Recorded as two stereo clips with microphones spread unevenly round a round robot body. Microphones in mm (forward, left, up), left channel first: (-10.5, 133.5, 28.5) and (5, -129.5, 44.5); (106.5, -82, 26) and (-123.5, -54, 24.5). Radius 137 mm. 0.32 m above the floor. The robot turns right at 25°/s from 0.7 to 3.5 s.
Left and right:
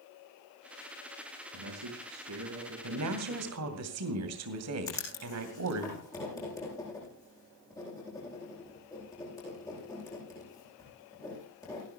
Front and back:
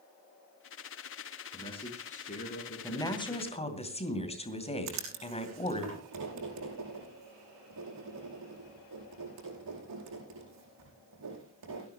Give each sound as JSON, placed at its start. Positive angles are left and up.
{"t": 1.5, "sound": "a man speaking", "azimuth_deg": -80, "distance_m": 3.5}
{"t": 2.8, "sound": "a woman speaking", "azimuth_deg": -85, "distance_m": 2.5}
{"t": 4.9, "sound": "writing", "azimuth_deg": 170, "distance_m": 9.0}